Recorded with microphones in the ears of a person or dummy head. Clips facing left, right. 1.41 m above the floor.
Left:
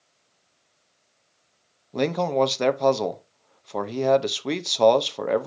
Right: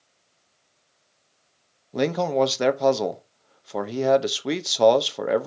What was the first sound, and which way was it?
A man speaking, 5° right (ahead or behind).